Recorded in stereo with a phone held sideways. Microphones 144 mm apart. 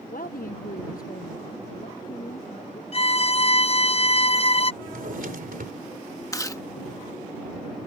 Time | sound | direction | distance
0.1 | a woman speaking | 75° left (ahead or behind) | ?
2.9 | a violin | 45° left (ahead or behind) | ?
4.8 | a drawer | 80° right | ?
6.3 | chewing | 25° left (ahead or behind) | ?